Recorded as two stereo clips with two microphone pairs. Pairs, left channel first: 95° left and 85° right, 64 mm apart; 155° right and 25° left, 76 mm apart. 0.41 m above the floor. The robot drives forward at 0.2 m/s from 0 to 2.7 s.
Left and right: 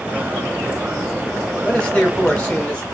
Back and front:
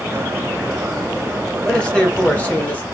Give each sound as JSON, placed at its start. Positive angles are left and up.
{"t": 1.6, "sound": "a man speaking", "azimuth_deg": 140, "distance_m": 0.9}